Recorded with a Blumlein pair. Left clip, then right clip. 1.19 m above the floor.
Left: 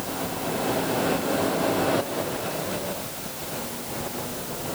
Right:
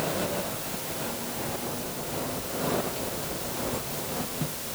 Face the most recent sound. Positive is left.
No sound to turn to.